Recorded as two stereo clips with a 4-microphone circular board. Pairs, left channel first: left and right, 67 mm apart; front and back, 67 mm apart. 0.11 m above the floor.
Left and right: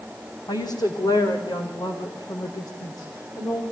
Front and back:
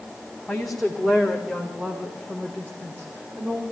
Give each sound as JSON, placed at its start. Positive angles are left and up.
{"t": 0.5, "sound": "a woman speaking", "azimuth_deg": 90, "distance_m": 5.5}